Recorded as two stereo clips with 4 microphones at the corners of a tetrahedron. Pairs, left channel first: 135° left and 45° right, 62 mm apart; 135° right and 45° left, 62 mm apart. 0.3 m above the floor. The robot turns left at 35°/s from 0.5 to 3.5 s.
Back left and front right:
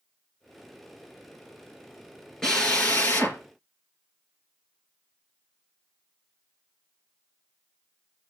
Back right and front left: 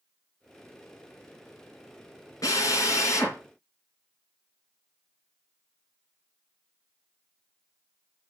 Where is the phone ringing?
I don't hear a phone ringing.